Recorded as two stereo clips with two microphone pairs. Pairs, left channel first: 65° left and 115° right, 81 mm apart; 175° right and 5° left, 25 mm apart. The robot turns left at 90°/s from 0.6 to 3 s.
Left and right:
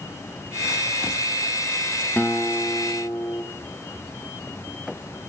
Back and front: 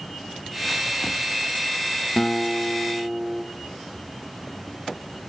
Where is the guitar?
140° left, 3 m; by 3.4 s 65° left, 3 m.